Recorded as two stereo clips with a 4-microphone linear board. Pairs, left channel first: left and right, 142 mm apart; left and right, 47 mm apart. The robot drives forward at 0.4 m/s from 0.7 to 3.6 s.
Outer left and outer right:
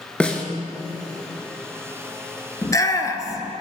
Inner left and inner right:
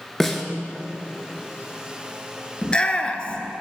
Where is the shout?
20° left (ahead or behind), 1.2 m; by 3.5 s 25° left (ahead or behind), 1.1 m.